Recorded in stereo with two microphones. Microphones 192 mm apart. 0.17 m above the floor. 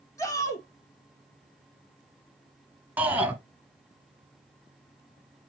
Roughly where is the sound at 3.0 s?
Centre.